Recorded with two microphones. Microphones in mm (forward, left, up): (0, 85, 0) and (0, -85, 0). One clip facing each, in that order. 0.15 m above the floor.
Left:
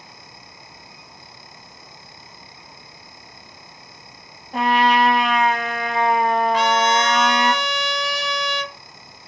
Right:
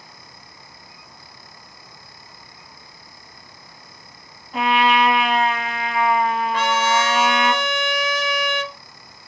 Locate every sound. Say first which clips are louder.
4.5 s a trumpet: left 1 dB; 45° left (ahead or behind), 1.4 m
6.5 s a trumpet: left 2 dB; 55° right (ahead or behind), 0.5 m